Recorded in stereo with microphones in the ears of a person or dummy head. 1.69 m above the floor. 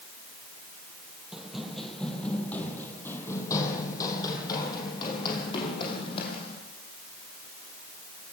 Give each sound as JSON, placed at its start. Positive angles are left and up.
{"t": 1.3, "sound": "running footsteps", "side_deg": -5, "distance_m": 3.0}